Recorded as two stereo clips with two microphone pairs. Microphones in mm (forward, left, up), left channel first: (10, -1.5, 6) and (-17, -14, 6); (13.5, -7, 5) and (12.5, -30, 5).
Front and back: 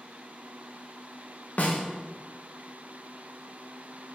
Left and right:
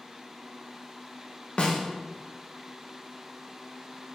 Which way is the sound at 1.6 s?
45° left.